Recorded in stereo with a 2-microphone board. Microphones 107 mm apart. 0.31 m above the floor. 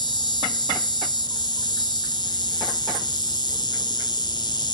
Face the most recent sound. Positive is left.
turn(degrees=45)  # may be behind; listen again after turning